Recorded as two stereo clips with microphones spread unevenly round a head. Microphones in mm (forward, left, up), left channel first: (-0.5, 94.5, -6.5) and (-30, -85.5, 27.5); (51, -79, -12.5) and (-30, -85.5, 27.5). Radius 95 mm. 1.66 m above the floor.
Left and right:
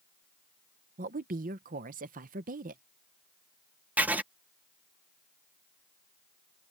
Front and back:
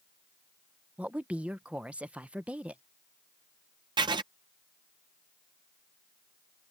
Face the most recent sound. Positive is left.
turn(degrees=180)